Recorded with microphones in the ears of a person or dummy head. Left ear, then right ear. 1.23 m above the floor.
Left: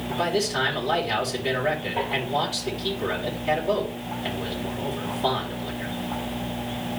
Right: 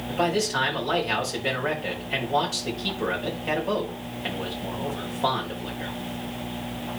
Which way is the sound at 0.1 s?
45° right (ahead or behind).